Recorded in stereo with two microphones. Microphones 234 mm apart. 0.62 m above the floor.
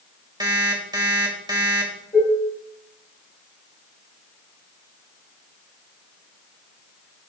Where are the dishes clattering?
15° left (ahead or behind), 3 m.